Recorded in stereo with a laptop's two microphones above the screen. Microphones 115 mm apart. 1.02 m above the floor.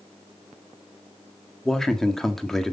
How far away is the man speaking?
About 1.7 m.